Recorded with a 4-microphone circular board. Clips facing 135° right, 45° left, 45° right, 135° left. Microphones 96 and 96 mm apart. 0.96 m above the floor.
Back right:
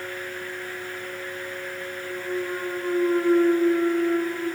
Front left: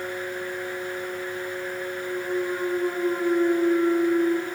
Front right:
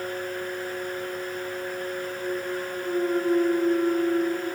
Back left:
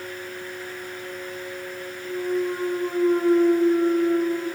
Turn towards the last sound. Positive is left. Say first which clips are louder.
# front left 2 dB, back left 5 dB
turn(degrees=150)